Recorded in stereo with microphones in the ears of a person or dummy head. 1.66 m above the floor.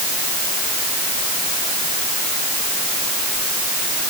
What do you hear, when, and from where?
Only background noise.